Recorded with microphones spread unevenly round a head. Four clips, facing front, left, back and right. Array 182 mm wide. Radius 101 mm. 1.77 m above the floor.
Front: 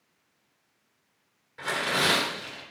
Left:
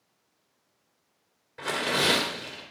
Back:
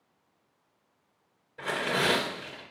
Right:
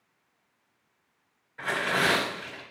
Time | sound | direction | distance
1.6 | tearing paper | 120° left | 2 m